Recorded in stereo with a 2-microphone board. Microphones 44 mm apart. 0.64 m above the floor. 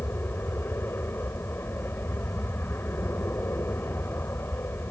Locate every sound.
0.0 s an aircraft: 60° left (ahead or behind)